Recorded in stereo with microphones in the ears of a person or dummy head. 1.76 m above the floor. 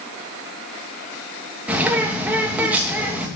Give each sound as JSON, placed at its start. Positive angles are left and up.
{"t": 1.7, "sound": "a bird", "side_deg": -10, "distance_m": 2.5}